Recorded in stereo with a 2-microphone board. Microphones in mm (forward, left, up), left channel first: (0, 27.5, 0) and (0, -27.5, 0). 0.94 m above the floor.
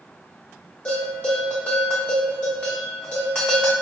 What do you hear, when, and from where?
0.8 s a bell: 20° left (ahead or behind), 1.1 m